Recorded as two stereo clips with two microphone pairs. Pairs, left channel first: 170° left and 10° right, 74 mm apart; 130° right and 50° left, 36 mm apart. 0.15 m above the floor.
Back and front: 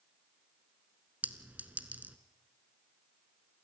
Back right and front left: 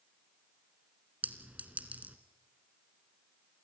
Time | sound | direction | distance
1.2 | a clink | 50° left | 1.2 m